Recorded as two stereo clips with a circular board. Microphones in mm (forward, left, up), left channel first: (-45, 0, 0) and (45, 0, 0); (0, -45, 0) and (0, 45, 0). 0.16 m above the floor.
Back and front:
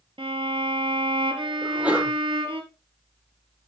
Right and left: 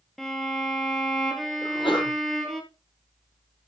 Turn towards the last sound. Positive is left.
turn(degrees=-75)